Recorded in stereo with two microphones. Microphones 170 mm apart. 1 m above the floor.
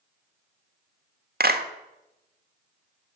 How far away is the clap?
About 1.5 m.